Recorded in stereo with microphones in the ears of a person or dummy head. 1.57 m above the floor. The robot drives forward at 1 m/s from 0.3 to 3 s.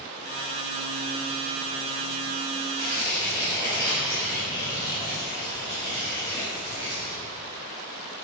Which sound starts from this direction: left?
Tearing paper, at 2.8 s.